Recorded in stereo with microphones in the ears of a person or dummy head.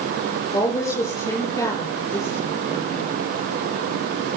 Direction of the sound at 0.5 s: 15° left (ahead or behind).